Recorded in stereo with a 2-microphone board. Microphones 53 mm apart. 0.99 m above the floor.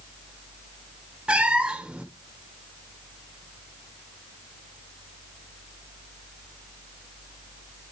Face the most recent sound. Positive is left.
turn(degrees=-20)  # may be behind; listen again after turning